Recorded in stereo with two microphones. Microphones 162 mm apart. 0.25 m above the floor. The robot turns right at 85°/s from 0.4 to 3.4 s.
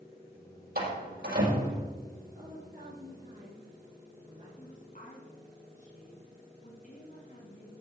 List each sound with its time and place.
0.8 s a door slam: 60° right (ahead or behind), 6 m; by 1.9 s 25° right (ahead or behind), 6 m
2.3 s a woman speaking: 130° right, 6 m; by 4.5 s 40° right, 6 m
4.6 s a woman speaking: 50° left (ahead or behind), 2.5 m